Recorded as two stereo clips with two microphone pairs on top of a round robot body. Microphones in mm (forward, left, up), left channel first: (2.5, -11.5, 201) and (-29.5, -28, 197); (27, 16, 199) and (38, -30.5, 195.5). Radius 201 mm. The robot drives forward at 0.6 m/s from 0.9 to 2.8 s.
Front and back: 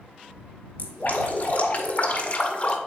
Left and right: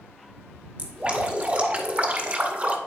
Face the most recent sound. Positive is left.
turn(degrees=-30)